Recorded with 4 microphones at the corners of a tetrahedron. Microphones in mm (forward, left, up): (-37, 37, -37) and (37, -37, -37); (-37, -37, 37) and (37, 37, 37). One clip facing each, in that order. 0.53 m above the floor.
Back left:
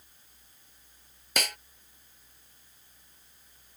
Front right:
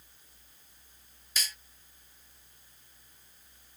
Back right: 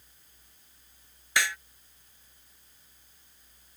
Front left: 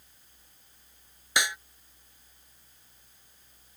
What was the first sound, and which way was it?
A snare drum, 115° left.